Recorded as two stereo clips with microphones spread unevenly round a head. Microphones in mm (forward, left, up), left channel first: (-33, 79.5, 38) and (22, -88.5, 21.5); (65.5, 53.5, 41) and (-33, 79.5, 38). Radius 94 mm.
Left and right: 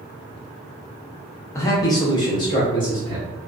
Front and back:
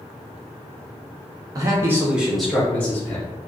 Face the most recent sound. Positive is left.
turn(degrees=45)